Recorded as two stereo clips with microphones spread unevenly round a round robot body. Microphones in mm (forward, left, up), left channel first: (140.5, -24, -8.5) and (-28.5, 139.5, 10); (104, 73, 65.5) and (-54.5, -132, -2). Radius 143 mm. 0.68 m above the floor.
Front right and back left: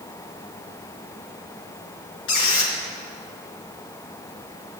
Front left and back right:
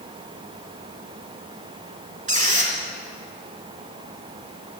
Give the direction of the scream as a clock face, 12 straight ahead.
I don't hear a scream.